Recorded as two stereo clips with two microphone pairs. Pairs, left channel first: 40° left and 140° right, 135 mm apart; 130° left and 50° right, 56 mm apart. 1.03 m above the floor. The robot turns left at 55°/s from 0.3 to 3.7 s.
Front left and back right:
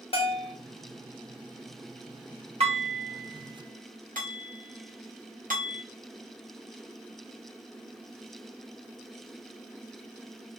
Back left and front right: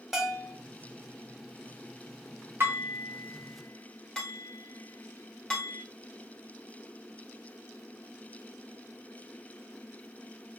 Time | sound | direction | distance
0.1 | a bell | 30° left | 0.8 m
2.6 | dishes clattering | 95° right | 1.1 m